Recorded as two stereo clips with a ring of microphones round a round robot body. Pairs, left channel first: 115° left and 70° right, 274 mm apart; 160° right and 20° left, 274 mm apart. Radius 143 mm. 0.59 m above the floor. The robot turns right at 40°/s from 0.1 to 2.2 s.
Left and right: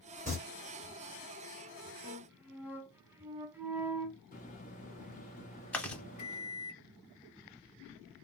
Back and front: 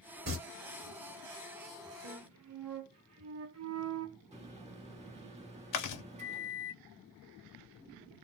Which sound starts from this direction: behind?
Chewing, at 5.7 s.